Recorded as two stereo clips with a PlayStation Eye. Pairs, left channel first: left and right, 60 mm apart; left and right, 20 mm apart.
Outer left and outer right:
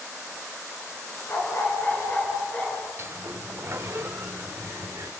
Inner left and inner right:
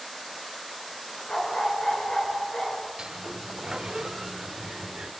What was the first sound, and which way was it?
A dog barking, 45° left (ahead or behind).